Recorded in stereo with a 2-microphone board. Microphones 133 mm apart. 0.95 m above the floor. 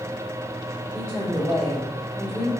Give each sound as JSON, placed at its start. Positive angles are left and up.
{"t": 0.9, "sound": "a woman speaking", "side_deg": -30, "distance_m": 1.3}